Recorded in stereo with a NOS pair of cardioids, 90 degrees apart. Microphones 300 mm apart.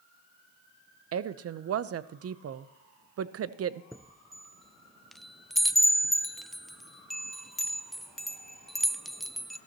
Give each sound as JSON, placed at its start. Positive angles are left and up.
{"t": 1.1, "sound": "a woman speaking", "azimuth_deg": -50, "distance_m": 0.8}
{"t": 3.9, "sound": "a chime", "azimuth_deg": 0, "distance_m": 0.5}